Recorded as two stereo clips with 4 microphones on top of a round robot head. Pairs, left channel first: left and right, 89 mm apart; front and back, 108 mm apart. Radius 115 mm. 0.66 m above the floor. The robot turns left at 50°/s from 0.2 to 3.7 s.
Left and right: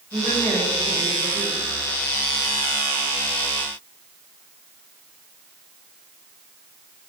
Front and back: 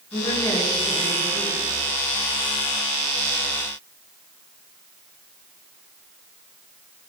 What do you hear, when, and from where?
0.1 s a woman speaking: 55° right, 8.5 m; by 1.6 s 125° right, 8.5 m